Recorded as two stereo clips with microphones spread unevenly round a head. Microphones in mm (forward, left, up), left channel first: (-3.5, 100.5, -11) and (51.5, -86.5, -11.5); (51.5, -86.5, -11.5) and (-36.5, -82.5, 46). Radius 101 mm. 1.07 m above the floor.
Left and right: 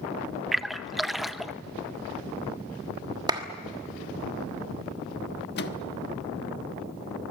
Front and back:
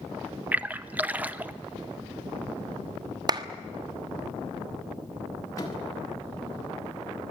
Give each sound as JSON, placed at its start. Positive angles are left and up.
{"t": 0.5, "sound": "a splash", "azimuth_deg": 15, "distance_m": 0.6}
{"t": 3.3, "sound": "a clap", "azimuth_deg": -145, "distance_m": 1.3}
{"t": 5.6, "sound": "a microwave", "azimuth_deg": 70, "distance_m": 1.3}